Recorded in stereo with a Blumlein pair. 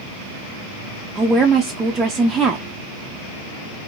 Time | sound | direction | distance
1.1 | a woman speaking | 15° right | 0.6 m